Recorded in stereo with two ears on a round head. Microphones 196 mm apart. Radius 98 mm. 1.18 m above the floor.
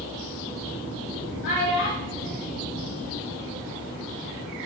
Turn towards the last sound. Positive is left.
turn(degrees=-10)  # may be behind; listen again after turning